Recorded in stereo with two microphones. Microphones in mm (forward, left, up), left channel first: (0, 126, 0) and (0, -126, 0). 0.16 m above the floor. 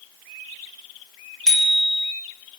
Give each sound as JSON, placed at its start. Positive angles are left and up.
{"t": 1.5, "sound": "a bicycle bell", "side_deg": 5, "distance_m": 5.0}